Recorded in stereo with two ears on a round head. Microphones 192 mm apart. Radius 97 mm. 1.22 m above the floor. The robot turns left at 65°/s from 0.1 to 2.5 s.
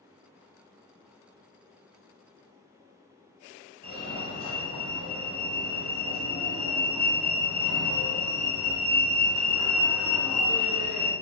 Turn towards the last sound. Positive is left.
turn(degrees=45)  # may be behind; listen again after turning